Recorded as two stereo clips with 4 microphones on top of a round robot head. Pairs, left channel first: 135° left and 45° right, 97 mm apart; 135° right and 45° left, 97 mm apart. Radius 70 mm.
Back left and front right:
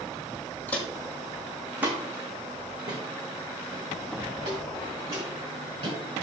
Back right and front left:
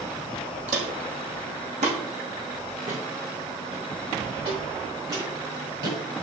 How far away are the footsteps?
About 2 m.